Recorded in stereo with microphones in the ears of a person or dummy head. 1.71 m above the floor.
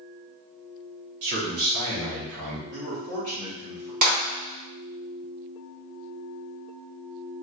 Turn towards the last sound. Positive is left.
turn(degrees=-50)  # may be behind; listen again after turning